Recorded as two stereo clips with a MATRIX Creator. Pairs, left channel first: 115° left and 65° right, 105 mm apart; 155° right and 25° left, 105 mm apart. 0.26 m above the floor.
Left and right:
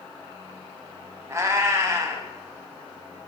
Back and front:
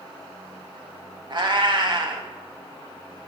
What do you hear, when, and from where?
1.3 s a cat meowing: 10° right, 0.5 m